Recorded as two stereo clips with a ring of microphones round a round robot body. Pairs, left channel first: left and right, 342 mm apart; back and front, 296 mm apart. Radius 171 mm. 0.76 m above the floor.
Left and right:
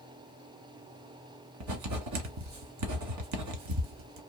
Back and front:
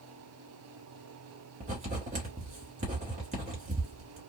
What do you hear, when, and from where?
1.6 s writing: 65° right, 1.3 m